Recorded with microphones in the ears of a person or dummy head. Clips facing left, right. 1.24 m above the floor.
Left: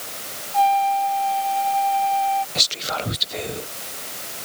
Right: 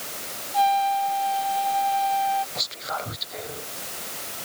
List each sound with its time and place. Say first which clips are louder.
0.5 s a trumpet: left 3 dB; 15° right (ahead or behind)
2.5 s whispering: left 4 dB; 40° left (ahead or behind)